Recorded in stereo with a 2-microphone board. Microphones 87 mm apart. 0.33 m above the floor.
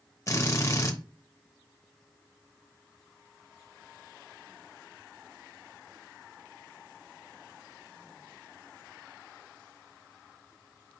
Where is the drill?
35° left (ahead or behind), 0.9 m.